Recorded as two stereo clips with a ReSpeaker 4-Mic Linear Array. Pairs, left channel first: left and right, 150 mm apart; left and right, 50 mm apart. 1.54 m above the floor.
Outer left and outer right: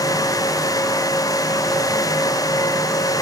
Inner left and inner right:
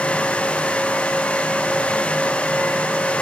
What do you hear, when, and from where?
Only background noise.